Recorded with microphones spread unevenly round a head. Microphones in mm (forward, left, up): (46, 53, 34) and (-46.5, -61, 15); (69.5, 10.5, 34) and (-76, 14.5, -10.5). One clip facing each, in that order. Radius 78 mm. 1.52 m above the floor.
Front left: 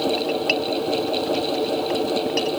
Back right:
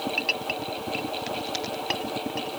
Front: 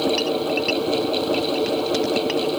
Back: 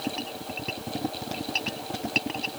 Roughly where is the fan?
Ahead.